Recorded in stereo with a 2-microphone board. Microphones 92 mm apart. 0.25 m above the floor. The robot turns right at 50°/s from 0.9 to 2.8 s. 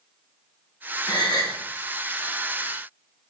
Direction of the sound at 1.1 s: 55° left (ahead or behind).